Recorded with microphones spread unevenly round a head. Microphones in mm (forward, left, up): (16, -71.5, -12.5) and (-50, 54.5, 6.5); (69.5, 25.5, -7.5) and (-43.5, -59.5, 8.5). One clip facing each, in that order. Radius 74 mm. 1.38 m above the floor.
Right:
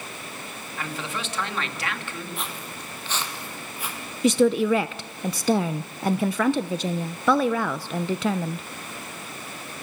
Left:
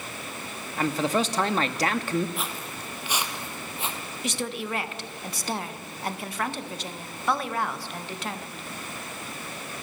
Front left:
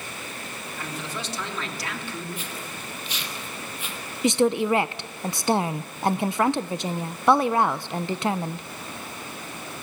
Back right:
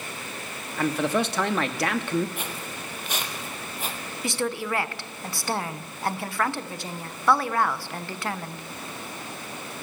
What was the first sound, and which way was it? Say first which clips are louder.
A man speaking: left 9 dB, back right 12 dB; 170° left.